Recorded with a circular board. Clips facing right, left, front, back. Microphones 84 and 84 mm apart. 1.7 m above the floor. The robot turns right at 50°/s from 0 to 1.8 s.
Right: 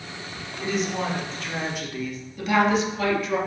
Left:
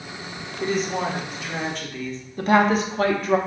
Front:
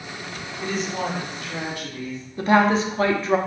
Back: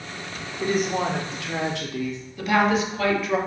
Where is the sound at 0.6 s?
130° left, 0.7 m; by 2.2 s 170° right, 0.7 m.